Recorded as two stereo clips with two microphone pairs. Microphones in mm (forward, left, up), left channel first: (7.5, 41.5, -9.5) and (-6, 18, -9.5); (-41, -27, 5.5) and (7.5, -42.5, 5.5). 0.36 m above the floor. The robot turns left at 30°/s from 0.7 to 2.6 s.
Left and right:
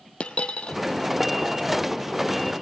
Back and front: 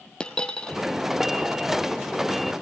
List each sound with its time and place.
0.2 s a dropped coin: 95° left, 1.0 m